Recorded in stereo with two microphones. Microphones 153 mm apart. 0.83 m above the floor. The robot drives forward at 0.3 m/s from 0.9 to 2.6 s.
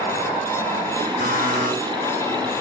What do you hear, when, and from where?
1.2 s a buzzer: 70° right (ahead or behind), 3 m